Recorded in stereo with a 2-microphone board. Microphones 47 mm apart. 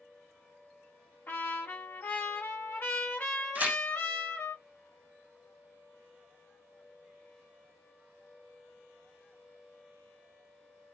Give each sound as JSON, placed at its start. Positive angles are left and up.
{"t": 1.3, "sound": "a trumpet", "side_deg": 55, "distance_m": 1.3}
{"t": 3.5, "sound": "tearing paper", "side_deg": -30, "distance_m": 0.7}